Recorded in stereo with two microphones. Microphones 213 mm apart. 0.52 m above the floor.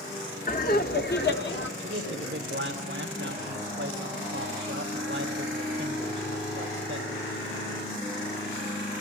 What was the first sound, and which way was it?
Laughter, 40° left (ahead or behind).